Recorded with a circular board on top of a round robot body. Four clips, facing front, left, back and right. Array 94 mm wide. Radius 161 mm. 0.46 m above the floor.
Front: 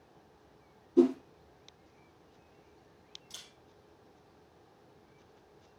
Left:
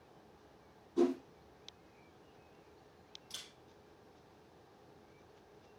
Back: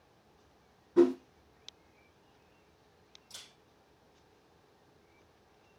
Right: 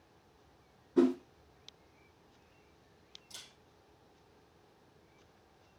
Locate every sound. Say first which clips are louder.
1.0 s a whoosh: right 4 dB, even; 155° right, 1.0 m
3.3 s a camera shutter: left 1 dB, even; 60° left, 2 m